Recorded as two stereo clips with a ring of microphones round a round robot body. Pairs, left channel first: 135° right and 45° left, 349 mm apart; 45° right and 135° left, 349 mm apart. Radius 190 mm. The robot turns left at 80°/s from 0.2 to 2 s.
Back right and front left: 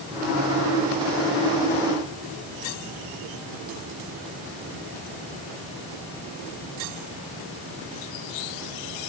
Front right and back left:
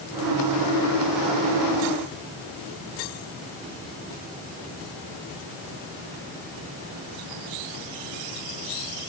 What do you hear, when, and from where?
Only background noise.